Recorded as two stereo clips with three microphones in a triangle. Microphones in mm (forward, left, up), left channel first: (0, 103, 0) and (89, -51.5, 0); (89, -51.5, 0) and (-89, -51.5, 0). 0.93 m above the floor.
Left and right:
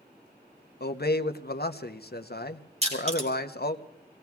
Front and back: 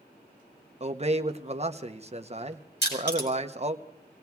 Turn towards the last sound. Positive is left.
turn(degrees=-10)